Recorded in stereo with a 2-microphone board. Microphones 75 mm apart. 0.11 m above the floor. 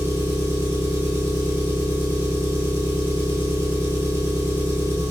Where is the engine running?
35° right (ahead or behind), 0.7 m.